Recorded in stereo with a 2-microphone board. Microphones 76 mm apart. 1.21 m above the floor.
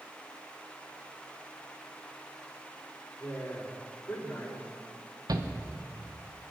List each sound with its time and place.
3.2 s a woman speaking: 35° left (ahead or behind), 3.5 m
5.3 s a shout: 55° right (ahead or behind), 1.3 m